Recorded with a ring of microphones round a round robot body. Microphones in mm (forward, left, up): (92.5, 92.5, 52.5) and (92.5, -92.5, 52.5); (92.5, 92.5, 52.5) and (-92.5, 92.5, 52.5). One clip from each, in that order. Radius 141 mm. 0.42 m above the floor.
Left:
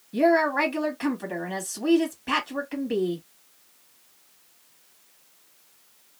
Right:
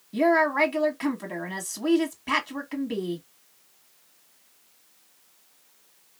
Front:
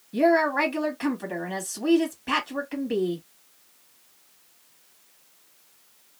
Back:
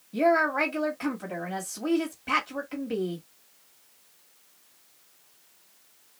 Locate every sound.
0.1 s a woman speaking: 45° right, 1.3 m